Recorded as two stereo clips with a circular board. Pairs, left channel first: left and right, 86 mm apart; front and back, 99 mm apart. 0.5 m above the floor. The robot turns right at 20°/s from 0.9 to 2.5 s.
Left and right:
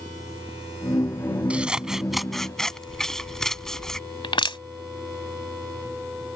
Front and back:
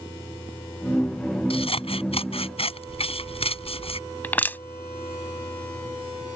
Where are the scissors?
15° right; by 4.0 s 5° left.